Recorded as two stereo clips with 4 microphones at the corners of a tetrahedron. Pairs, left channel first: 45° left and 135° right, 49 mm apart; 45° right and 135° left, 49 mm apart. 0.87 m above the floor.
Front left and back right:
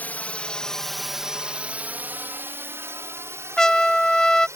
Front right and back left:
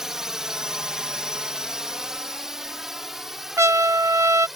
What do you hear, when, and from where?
0.0 s a drone: 60° left; by 4.6 s 140° right
3.6 s a trumpet: 125° left